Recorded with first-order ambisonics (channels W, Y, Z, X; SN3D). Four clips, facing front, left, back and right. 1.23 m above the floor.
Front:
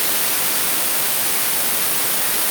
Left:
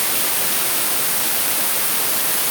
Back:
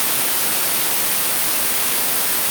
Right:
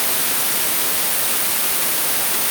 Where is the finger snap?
I don't hear a finger snap.